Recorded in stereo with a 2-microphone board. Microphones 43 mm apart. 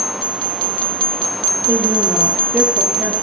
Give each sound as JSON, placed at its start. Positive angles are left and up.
{"t": 1.7, "sound": "a woman speaking", "side_deg": -70, "distance_m": 4.0}